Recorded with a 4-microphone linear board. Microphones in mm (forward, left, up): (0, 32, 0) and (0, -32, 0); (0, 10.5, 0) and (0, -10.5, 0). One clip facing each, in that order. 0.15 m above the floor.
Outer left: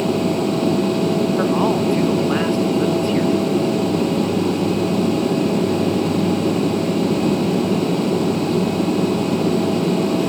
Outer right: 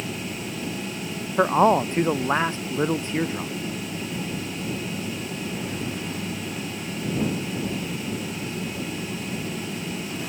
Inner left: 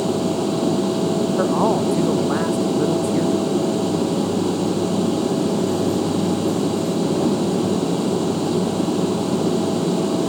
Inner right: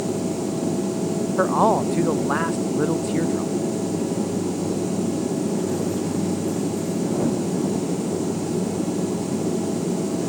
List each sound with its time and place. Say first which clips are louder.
0.0 s an aircraft: outer left 14 dB, inner left 4 dB; 65° left (ahead or behind)
1.4 s a man speaking: outer left 1 dB, inner right 2 dB; 25° right (ahead or behind)